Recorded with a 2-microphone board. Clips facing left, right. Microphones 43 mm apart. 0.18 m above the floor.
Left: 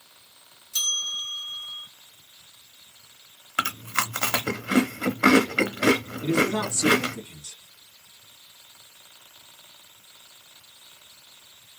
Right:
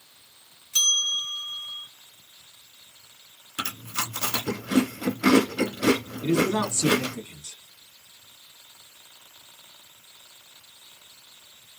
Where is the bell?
45° right (ahead or behind), 0.7 m.